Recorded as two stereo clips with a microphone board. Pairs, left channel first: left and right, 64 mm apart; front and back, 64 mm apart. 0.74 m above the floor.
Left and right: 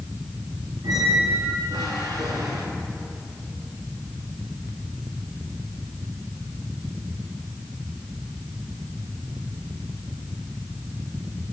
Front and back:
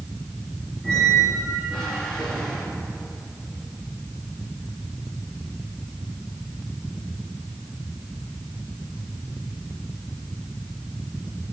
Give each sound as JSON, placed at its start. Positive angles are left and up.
{"t": 0.8, "sound": "a squeak", "azimuth_deg": -85, "distance_m": 3.0}